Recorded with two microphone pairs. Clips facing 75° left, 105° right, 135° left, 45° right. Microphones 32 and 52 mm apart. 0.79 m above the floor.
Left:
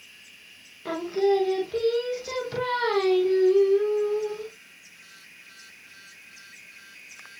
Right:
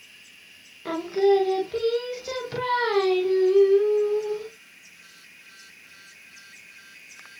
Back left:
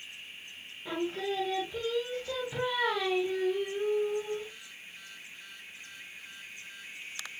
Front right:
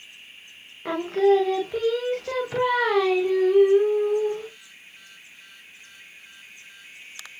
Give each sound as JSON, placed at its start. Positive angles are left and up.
{"t": 0.8, "sound": "singing", "azimuth_deg": -25, "distance_m": 0.6}